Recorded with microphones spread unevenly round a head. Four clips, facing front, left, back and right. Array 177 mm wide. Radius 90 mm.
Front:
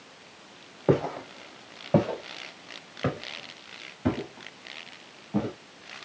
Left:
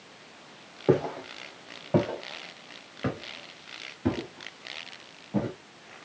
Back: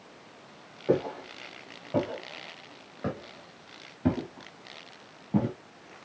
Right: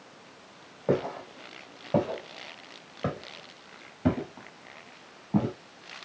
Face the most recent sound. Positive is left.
turn(degrees=-140)